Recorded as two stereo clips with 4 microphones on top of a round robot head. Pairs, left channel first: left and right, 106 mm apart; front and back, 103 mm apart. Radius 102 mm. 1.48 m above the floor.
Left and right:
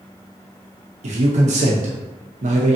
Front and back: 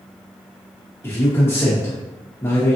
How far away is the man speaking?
About 0.7 m.